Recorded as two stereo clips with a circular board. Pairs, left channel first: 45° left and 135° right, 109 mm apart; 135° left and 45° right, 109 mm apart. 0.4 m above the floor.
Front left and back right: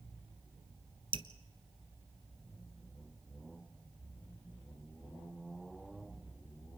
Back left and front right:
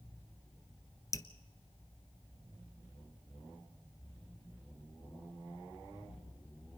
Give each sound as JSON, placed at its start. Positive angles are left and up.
{"t": 1.1, "sound": "dripping", "azimuth_deg": -165, "distance_m": 1.0}